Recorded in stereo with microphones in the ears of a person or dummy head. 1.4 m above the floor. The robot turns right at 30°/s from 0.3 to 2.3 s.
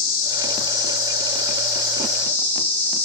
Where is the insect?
110° left, 1.5 m; by 3.0 s 170° left, 1.5 m.